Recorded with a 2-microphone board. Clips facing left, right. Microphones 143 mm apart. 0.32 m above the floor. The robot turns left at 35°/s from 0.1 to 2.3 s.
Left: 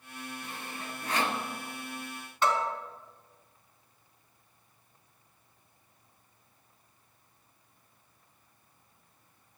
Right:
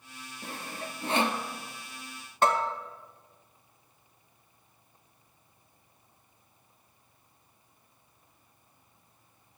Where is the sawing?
50° right (ahead or behind), 1.2 m; by 1.4 s 15° right (ahead or behind), 1.2 m.